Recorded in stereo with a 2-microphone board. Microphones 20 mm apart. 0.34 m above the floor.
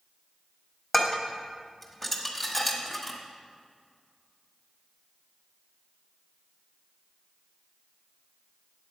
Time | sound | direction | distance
0.9 | dishes clattering | 5° left (ahead or behind) | 1.2 m